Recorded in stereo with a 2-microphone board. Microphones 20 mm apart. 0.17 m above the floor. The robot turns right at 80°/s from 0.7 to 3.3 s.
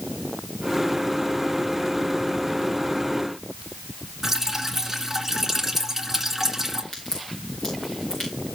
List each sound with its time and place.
4.2 s dripping: 15° right (ahead or behind), 2 m
6.9 s a crack: 50° left (ahead or behind), 8 m